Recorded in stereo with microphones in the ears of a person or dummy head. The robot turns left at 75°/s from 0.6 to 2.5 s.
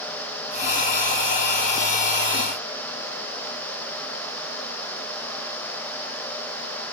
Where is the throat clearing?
No throat clearing in this recording.